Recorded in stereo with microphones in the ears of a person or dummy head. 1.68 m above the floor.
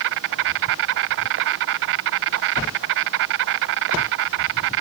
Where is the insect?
55° right (ahead or behind).